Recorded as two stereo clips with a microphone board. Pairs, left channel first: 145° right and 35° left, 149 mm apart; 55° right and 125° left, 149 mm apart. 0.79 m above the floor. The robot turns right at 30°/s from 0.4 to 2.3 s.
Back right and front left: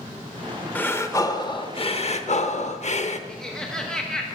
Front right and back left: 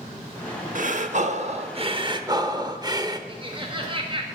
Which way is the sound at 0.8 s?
135° left.